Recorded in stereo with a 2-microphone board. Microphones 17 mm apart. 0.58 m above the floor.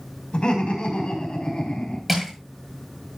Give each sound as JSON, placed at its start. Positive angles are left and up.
{"t": 0.3, "sound": "laughter", "side_deg": 70, "distance_m": 5.0}
{"t": 2.1, "sound": "crushing", "side_deg": 0, "distance_m": 9.0}